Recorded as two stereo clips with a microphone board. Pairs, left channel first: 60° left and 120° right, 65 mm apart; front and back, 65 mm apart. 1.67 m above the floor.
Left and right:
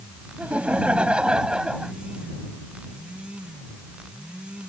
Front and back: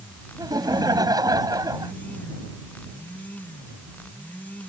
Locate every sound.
0.4 s laughter: 170° left; by 1.9 s 160° left